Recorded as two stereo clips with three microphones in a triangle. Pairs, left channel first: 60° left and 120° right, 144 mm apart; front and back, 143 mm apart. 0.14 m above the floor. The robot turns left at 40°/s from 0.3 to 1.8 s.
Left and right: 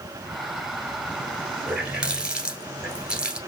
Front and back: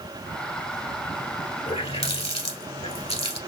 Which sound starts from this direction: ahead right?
A running tap, at 1.7 s.